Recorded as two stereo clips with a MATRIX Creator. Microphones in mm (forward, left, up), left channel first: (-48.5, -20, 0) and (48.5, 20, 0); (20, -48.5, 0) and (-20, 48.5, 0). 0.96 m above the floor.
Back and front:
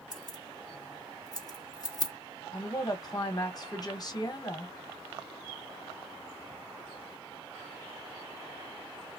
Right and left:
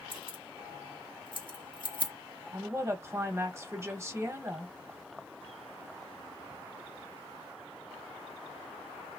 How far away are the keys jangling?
About 0.9 m.